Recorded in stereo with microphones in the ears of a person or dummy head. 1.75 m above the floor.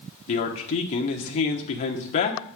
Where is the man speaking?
35° left (ahead or behind), 1.0 m.